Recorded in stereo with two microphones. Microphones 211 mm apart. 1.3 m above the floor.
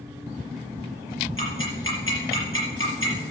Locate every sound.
1.4 s ticking: 80° left, 5.5 m